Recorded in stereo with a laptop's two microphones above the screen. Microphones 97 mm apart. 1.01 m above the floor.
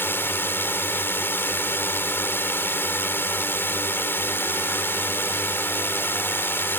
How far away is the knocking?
I don't hear knocking.